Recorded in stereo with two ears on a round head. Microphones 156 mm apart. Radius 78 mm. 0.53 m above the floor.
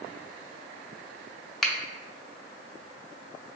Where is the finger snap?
Centre (ahead or behind), 0.6 m.